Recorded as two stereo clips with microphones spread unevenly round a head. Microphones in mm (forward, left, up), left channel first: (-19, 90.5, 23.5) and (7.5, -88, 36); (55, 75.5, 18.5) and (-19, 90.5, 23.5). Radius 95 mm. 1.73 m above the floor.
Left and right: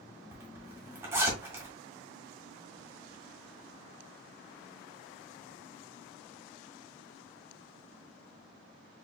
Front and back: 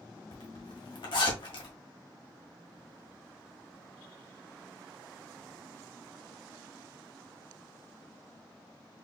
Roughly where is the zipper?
Ahead.